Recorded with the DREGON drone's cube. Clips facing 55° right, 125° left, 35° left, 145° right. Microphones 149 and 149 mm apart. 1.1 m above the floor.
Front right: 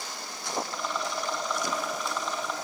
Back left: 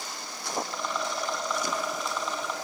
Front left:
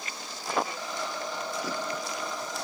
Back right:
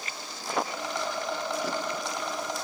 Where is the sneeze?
I don't hear a sneeze.